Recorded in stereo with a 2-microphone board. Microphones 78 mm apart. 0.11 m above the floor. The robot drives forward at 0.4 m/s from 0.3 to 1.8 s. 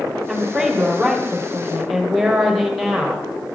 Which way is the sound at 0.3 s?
Centre (ahead or behind).